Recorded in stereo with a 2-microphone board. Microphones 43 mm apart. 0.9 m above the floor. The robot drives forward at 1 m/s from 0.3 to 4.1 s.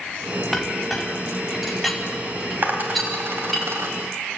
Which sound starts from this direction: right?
A dropped coin, at 2.6 s.